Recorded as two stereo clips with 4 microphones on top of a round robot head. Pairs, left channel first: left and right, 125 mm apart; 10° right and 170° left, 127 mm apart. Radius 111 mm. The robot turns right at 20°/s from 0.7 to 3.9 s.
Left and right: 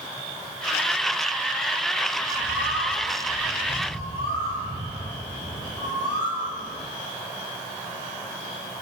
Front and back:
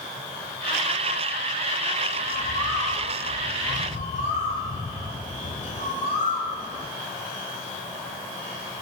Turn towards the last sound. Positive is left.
turn(degrees=20)